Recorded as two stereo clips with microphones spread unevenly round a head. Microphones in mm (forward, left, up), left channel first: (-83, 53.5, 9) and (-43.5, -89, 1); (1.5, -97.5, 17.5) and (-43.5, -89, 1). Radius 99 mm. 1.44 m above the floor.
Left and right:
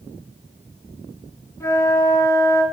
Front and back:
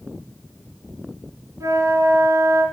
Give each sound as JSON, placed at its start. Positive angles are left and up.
{"t": 1.6, "sound": "a flute", "azimuth_deg": 175, "distance_m": 3.5}